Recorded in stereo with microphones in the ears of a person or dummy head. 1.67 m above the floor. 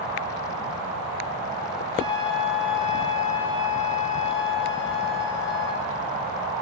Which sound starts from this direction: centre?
A flute, at 1.9 s.